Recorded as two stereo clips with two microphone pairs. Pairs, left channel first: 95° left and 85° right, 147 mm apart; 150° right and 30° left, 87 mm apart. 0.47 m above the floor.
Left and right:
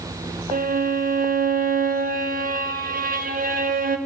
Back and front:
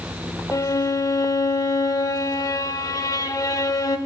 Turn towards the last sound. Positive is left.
turn(degrees=-100)